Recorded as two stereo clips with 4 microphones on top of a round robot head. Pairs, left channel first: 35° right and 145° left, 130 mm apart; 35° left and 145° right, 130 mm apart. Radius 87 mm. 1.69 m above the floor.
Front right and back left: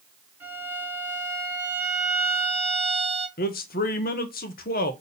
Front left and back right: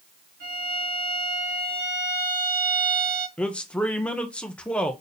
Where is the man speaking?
45° right, 1.3 m.